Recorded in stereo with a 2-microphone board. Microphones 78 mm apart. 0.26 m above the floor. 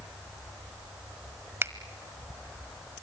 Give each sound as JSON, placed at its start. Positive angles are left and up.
{"t": 1.6, "sound": "a finger snap", "side_deg": -30, "distance_m": 1.3}